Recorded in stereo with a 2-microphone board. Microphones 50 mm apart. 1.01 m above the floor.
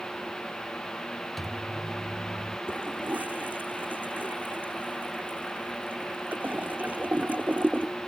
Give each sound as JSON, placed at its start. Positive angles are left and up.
{"t": 1.4, "sound": "a microwave", "side_deg": 0}
{"t": 2.7, "sound": "a toilet flushing", "side_deg": -35}